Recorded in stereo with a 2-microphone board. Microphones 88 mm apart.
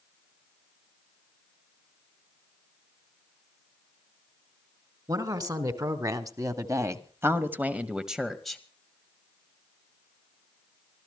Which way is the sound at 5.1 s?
45° right (ahead or behind).